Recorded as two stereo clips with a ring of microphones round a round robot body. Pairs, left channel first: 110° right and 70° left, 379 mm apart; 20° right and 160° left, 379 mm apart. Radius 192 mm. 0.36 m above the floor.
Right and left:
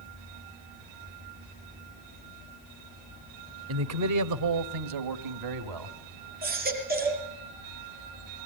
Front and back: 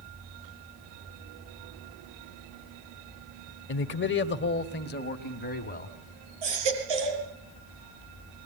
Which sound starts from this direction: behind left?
A baby crying, at 6.4 s.